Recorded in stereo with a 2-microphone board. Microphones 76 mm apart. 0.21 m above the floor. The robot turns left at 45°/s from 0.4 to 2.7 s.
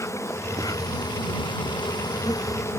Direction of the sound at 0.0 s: 140° left.